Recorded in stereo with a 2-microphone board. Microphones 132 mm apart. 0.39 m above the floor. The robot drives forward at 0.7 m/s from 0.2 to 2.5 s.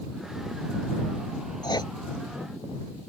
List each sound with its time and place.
1.6 s writing: 35° left (ahead or behind)